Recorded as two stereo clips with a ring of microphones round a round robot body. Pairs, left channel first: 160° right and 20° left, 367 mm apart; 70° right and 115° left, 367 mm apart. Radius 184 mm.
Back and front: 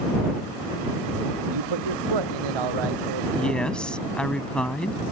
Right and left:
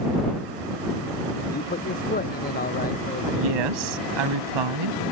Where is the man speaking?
Straight ahead.